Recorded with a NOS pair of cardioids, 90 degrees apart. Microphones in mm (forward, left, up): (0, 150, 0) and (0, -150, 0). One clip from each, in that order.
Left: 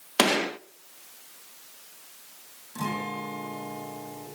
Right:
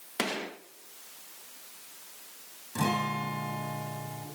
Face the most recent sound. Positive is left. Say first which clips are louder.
# right 2 dB
turn(degrees=-45)